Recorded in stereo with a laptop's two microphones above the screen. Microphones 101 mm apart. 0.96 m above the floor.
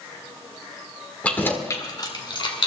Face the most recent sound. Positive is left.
turn(degrees=60)  # may be behind; listen again after turning